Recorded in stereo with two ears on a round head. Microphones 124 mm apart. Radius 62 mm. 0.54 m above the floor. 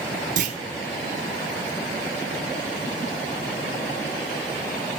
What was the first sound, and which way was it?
A clunk, 60° right (ahead or behind).